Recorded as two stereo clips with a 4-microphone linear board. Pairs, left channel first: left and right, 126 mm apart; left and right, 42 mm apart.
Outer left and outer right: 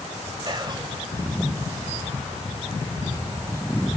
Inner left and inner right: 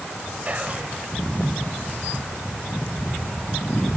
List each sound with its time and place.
0.5 s whispering: 35° right (ahead or behind), 1.0 m